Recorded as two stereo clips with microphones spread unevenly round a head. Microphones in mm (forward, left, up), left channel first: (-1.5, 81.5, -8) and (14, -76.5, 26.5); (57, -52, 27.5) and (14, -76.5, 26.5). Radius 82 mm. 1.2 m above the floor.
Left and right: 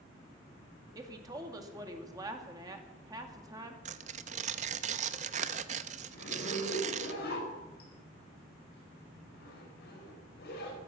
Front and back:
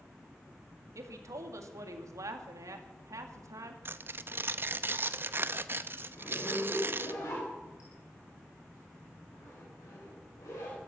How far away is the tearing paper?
About 0.7 m.